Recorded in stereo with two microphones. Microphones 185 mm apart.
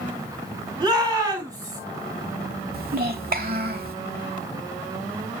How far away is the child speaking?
About 1.7 m.